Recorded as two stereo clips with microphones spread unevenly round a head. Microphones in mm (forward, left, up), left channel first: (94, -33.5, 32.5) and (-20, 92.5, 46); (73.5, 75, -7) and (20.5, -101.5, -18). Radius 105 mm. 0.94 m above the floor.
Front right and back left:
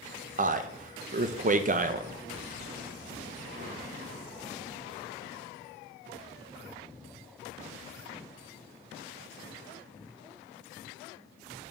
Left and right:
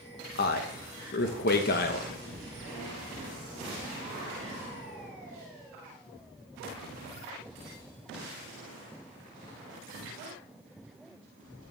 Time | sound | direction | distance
0.4 | a man speaking | 100° left | 0.7 m